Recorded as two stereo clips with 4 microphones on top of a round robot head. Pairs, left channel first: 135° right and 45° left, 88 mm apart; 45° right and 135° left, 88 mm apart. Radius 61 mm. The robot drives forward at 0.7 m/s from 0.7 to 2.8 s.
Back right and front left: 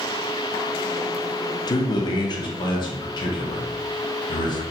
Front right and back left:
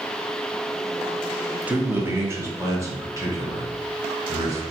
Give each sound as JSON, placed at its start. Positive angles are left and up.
{"t": 1.7, "sound": "a man speaking", "azimuth_deg": -155, "distance_m": 0.7}